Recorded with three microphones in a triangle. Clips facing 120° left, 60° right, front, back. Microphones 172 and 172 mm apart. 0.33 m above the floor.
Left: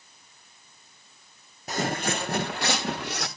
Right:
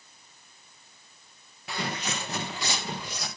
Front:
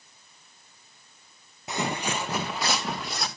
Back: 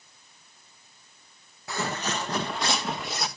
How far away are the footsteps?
About 1.2 m.